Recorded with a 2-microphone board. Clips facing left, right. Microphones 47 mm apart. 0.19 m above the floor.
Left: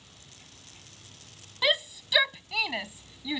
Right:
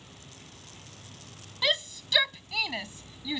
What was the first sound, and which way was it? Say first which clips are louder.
An insect: right 4 dB; 25° right (ahead or behind).